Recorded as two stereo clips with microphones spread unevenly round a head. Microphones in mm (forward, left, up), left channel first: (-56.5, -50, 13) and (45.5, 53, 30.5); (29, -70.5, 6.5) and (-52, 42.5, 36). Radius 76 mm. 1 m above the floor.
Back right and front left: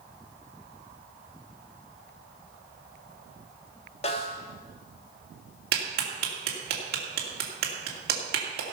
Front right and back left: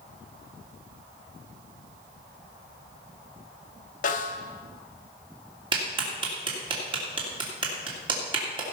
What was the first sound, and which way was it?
A snare drum, 85° right.